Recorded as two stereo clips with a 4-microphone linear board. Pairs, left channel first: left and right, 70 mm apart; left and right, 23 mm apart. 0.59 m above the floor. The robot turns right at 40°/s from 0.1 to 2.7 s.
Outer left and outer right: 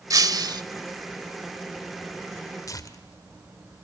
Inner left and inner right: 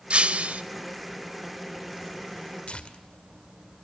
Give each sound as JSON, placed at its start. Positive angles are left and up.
{"t": 0.1, "sound": "breaking glass", "side_deg": -55, "distance_m": 0.8}
{"t": 2.7, "sound": "tearing paper", "side_deg": 50, "distance_m": 2.0}